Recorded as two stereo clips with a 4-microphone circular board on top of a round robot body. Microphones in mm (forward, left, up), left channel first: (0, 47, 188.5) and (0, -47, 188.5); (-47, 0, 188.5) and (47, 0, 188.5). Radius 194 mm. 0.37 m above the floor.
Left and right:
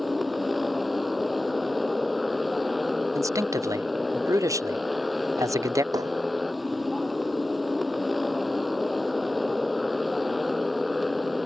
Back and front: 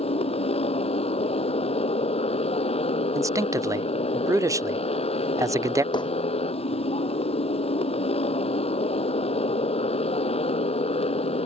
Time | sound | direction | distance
0.0 | a motorcycle | straight behind | ?
3.1 | a man speaking | 45° right | ?
5.9 | hammering | 140° right | ?